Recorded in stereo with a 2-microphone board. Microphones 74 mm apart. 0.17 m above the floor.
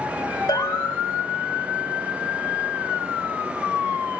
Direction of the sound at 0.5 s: 60° left (ahead or behind).